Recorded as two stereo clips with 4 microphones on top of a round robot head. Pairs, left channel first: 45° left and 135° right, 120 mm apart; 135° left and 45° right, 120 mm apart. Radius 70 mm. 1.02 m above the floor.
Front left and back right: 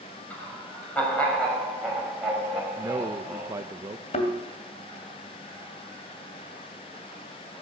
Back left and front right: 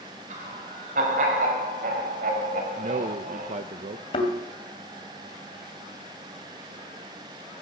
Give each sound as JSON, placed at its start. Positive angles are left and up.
{"t": 0.3, "sound": "laughter", "azimuth_deg": -30, "distance_m": 6.5}
{"t": 2.8, "sound": "a man speaking", "azimuth_deg": -70, "distance_m": 0.6}
{"t": 4.1, "sound": "a thud", "azimuth_deg": 85, "distance_m": 2.5}